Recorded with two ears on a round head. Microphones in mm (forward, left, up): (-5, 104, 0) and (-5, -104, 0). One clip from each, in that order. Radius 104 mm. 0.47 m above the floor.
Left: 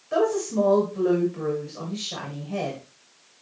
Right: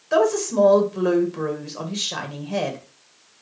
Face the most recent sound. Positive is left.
turn(degrees=-40)  # may be behind; listen again after turning